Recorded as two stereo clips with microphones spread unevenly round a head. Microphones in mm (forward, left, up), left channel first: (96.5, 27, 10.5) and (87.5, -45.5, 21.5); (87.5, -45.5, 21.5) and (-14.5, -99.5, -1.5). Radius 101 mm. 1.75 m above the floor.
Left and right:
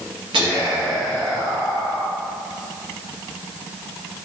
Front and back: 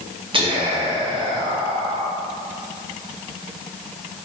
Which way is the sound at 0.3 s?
110° right.